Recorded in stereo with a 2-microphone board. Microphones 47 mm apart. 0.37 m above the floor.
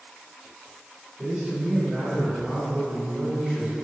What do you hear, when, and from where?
1.2 s a man speaking: 25° right (ahead or behind), 1.5 m; by 3.8 s 5° left (ahead or behind), 1.5 m